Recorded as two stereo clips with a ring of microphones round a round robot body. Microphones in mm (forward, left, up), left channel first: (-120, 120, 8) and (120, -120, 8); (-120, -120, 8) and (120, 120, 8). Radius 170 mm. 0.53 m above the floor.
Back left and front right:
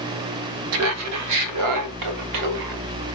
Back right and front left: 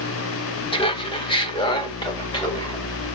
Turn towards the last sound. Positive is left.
turn(degrees=-60)